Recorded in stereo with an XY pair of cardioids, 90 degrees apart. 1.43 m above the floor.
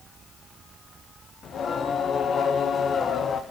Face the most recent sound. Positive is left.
turn(degrees=60)